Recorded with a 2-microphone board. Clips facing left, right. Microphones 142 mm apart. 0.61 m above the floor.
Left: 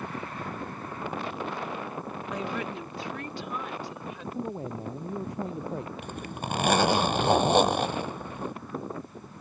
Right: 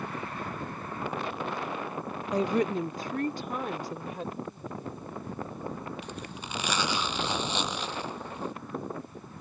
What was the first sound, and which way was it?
A woman speaking, 35° right (ahead or behind).